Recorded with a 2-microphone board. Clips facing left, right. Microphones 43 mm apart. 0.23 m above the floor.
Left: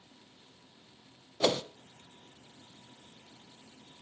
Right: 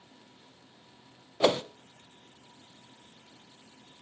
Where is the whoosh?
20° right (ahead or behind), 0.7 m.